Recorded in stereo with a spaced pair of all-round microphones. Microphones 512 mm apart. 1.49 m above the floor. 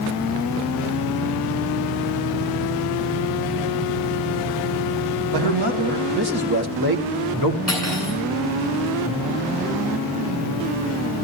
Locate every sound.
5.3 s a man speaking: 50° right (ahead or behind), 2.5 m; by 7.6 s 40° right (ahead or behind), 1.2 m
7.7 s cutlery clinking: 30° right (ahead or behind), 9 m